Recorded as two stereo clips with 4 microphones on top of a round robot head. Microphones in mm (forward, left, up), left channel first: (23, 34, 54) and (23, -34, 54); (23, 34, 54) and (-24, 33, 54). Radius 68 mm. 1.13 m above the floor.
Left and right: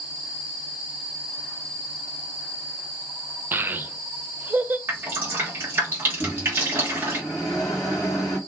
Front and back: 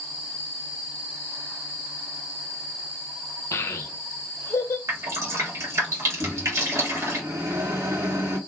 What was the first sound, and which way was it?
A child speaking, 30° right.